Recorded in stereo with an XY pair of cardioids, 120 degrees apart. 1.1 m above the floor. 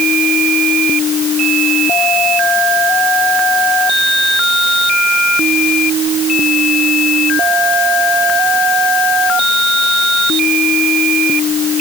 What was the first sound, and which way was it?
Only background noise.